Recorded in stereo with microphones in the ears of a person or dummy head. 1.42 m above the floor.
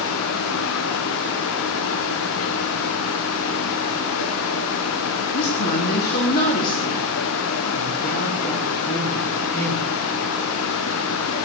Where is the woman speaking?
55° left (ahead or behind), 2.5 m; by 9.9 s 35° left (ahead or behind), 5.5 m.